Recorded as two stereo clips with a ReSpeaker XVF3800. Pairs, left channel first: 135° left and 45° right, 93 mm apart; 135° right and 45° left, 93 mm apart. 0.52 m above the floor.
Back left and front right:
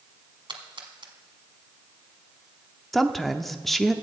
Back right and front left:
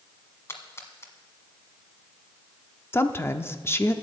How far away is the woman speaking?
About 0.7 m.